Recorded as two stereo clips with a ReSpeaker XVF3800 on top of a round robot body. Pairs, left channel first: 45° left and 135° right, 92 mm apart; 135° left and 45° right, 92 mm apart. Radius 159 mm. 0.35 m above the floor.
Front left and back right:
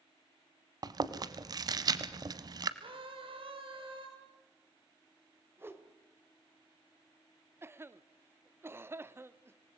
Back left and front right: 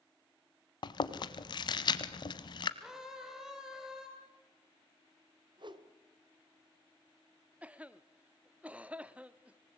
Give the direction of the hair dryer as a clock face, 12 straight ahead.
No hair dryer in this recording.